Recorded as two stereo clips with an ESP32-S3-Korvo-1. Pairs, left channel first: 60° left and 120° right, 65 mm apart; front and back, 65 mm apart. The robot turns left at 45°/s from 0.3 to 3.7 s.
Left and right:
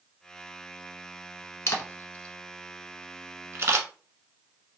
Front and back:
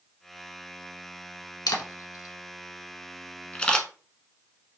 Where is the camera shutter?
15° left, 0.6 m; by 3.9 s 75° right, 0.6 m.